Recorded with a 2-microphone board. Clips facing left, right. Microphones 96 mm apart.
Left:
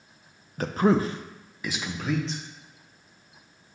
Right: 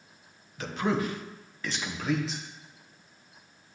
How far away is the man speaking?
About 0.6 m.